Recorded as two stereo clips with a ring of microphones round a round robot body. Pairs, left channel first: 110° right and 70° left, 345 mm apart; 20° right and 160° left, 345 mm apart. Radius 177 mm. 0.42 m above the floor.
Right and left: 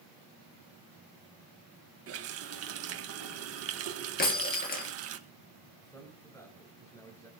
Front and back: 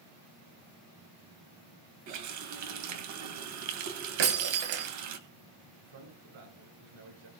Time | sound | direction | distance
2.1 | a running tap | 115° left | 2 m
4.2 | breaking glass | straight behind | 2.5 m
5.8 | a man speaking | 165° left | 7 m